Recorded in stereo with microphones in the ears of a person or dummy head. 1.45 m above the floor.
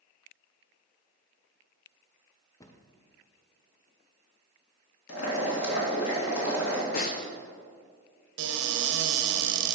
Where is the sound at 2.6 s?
25° left (ahead or behind), 0.6 m.